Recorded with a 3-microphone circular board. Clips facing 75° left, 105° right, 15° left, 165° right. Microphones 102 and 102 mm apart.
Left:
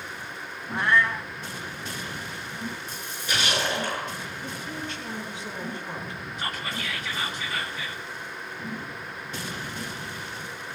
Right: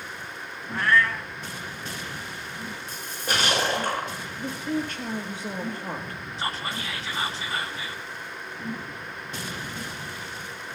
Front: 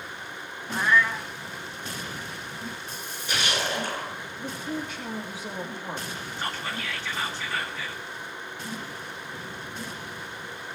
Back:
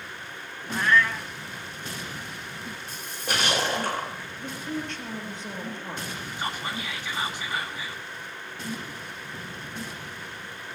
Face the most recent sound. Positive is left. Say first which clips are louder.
# right 2 dB, back 1 dB
turn(degrees=-105)